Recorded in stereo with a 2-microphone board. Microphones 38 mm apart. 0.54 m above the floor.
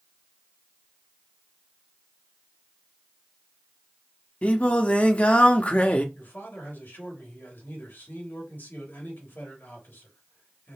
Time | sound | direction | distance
4.4 | singing | 35° left (ahead or behind) | 0.6 m
6.2 | a man speaking | 60° left (ahead or behind) | 2 m